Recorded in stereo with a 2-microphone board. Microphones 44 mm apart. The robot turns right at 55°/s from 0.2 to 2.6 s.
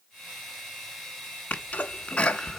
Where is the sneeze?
40° left (ahead or behind), 1.4 m; by 2.6 s 10° left (ahead or behind), 1.4 m.